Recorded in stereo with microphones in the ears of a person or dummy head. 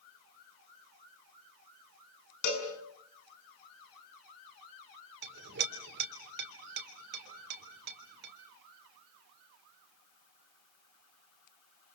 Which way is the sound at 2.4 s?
60° left (ahead or behind).